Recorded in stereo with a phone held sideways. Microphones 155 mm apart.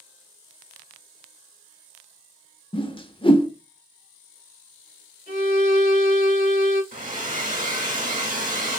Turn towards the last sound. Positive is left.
turn(degrees=-60)  # may be behind; listen again after turning